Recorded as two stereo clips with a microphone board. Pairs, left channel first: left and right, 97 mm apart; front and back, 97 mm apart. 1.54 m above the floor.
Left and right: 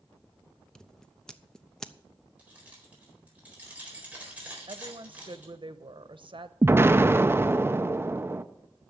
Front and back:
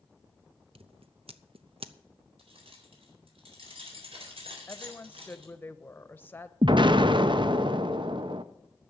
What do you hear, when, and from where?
0.8 s scissors: 175° left, 0.7 m
2.4 s keys jangling: 165° right, 4 m
4.7 s a woman speaking: 70° right, 0.9 m
6.6 s an explosion: 150° right, 0.6 m